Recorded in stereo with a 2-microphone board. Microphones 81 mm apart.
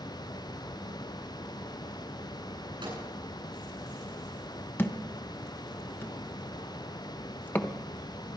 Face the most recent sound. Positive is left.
turn(degrees=25)  # may be behind; listen again after turning